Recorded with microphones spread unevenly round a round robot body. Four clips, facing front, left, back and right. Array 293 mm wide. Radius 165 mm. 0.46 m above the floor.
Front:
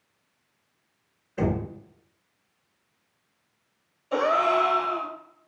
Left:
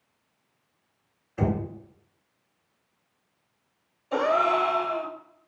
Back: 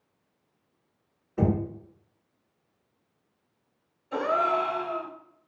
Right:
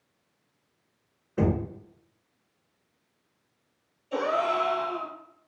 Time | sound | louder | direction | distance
1.4 | knocking | right 1 dB, back 1 dB | 100° right | 1.8 m
4.1 | a gasp | left 3 dB, front 3 dB | 55° left | 0.8 m